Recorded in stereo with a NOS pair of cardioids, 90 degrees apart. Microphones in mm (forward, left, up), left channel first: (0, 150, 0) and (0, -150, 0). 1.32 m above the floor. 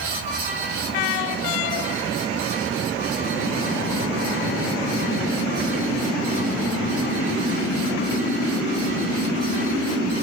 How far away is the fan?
About 2.5 m.